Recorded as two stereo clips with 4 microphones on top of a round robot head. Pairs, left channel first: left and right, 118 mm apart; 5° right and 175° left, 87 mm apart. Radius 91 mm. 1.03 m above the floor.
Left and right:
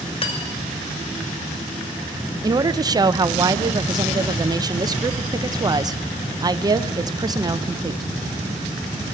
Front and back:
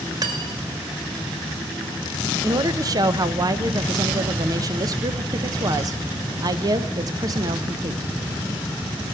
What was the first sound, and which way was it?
Cutlery clinking, 130° left.